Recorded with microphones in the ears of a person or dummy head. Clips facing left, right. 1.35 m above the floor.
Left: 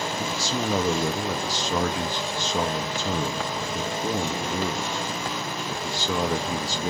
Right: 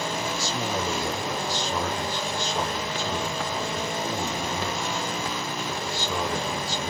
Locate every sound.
0.2 s a man speaking: 50° left (ahead or behind), 0.6 m